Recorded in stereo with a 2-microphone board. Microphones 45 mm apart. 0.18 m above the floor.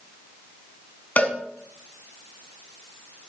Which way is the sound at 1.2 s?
40° left (ahead or behind).